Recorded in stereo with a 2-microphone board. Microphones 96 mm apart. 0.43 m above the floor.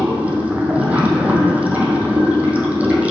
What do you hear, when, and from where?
0.0 s running water: 15° right (ahead or behind), 1.4 m